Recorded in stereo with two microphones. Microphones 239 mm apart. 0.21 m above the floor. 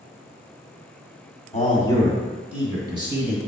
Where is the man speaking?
25° left (ahead or behind), 1.8 m; by 3.4 s 25° right (ahead or behind), 2.5 m.